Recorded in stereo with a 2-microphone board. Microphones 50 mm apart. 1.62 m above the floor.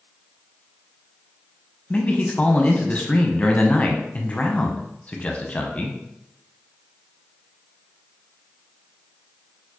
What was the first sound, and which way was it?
A man speaking, 25° left (ahead or behind).